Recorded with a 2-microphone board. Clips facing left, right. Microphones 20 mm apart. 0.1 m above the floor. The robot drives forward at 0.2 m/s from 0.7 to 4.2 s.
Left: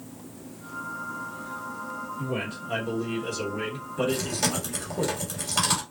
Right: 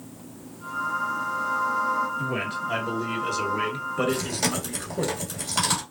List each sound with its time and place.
2.2 s a man speaking: 35° right (ahead or behind), 1.7 m
4.1 s chewing: 10° right (ahead or behind), 2 m